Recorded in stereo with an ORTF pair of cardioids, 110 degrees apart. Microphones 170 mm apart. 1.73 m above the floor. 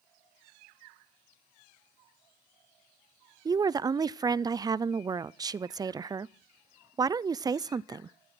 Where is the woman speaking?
25° right, 0.5 m.